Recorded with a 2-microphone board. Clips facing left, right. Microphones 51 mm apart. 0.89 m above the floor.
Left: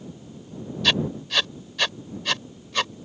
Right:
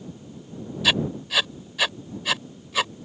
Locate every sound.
0.8 s writing: 5° right (ahead or behind)